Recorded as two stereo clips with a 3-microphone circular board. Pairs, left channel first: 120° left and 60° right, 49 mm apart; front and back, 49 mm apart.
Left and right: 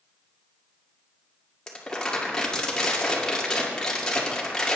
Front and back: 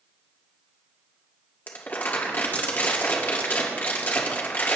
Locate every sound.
1.7 s crumpling: 45° left, 1.9 m